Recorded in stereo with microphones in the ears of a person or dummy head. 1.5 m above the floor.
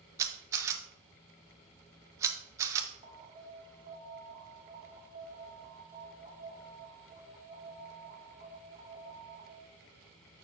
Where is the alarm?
40° right (ahead or behind), 1.3 m.